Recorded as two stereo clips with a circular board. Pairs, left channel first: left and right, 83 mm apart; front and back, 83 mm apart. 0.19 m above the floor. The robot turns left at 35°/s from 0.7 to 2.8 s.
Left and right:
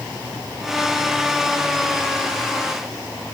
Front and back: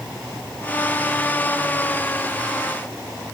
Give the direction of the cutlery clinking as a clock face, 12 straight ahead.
I don't hear cutlery clinking.